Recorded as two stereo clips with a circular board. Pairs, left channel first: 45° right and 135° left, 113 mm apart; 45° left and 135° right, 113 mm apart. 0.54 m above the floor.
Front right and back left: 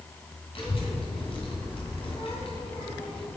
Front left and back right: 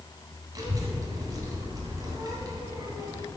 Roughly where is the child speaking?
Right.